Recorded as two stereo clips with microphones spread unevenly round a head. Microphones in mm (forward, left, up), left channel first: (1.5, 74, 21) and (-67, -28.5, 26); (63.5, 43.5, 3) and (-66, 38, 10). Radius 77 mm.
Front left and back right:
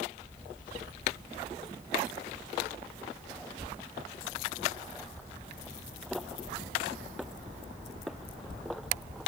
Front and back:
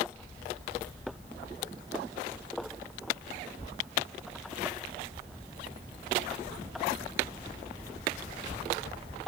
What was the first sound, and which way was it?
Only background noise.